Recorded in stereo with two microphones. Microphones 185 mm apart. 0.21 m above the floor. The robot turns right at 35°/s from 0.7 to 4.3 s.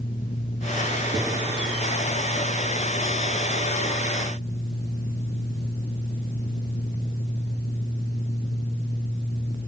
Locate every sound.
1.1 s a gunshot: 5° right (ahead or behind), 5 m; by 1.3 s 5° left (ahead or behind), 5 m